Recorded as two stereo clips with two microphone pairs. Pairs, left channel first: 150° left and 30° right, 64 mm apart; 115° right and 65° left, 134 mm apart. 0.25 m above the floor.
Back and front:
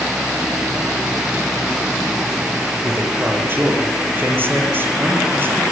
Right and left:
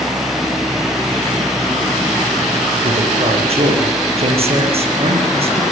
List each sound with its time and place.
2.8 s a man speaking: 25° left, 7.5 m